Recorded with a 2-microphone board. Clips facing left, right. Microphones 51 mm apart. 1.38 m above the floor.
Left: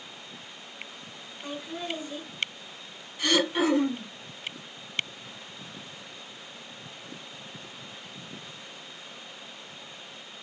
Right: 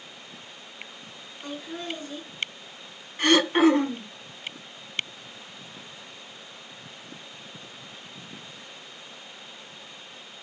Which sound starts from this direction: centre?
Laughter, at 1.4 s.